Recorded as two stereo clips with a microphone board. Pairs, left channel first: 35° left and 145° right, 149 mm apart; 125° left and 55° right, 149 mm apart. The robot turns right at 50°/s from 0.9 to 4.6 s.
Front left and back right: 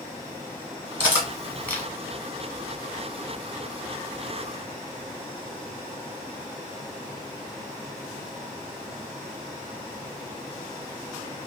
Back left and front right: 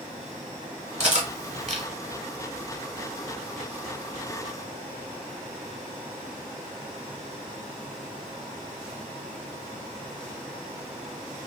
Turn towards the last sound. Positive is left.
turn(degrees=105)